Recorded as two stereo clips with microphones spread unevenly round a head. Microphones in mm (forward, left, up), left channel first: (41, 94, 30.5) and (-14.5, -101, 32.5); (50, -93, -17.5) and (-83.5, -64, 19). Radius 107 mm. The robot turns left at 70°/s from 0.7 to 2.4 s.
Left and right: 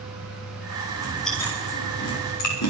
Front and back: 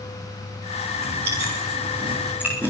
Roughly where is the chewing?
Behind.